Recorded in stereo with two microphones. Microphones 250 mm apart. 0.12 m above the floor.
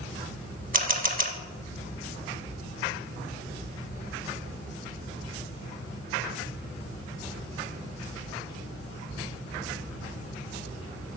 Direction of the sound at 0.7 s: 35° right (ahead or behind).